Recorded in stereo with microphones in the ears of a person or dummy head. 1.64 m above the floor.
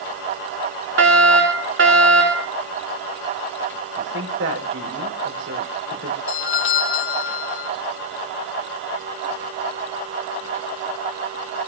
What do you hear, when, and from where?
1.0 s a fire alarm: 75° right (ahead or behind), 5 m
4.0 s a woman speaking: 80° right, 5 m
6.3 s a doorbell: 80° left, 3 m